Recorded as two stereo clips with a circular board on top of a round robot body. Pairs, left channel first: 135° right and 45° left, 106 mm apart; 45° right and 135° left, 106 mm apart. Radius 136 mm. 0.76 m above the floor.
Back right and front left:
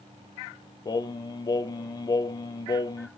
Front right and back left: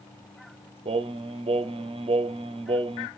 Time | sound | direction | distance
0.8 | singing | 170° left | 0.6 m